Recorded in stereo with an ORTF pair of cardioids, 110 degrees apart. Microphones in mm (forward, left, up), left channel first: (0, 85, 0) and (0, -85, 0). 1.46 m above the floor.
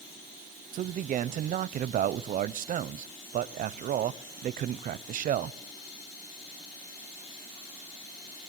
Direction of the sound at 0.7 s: 50° right.